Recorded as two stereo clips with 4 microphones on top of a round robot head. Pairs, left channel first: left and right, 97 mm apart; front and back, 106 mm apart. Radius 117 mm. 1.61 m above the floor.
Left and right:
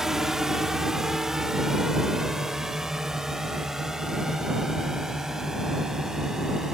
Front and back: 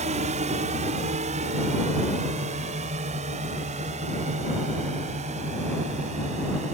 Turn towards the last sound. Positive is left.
turn(degrees=-175)